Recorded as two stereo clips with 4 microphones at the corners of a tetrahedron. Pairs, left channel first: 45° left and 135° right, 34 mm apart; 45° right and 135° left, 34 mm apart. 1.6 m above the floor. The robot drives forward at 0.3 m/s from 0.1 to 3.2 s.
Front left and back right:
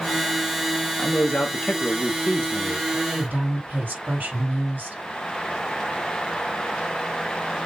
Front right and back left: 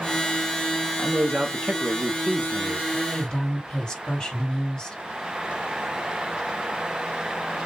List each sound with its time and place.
1.0 s a man speaking: 80° left, 1.2 m; by 2.8 s 110° left, 1.3 m
2.9 s a woman speaking: 110° right, 3.5 m